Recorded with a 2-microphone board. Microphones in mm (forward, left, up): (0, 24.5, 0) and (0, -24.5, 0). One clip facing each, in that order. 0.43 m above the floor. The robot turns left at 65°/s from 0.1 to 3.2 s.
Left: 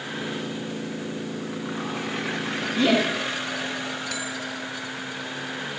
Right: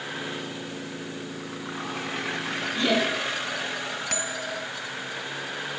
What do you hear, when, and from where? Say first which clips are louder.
2.8 s laughter: left 3 dB; 10° left (ahead or behind), 5 m; by 3.1 s 30° left (ahead or behind), 5 m
4.1 s a bell: even; 50° right (ahead or behind), 1.3 m